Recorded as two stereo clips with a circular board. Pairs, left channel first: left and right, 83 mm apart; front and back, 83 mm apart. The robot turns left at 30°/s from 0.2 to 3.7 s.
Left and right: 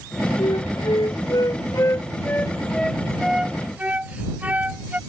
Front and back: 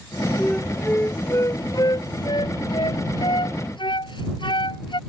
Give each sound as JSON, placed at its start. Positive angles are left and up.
{"t": 0.4, "sound": "a flute", "azimuth_deg": 80}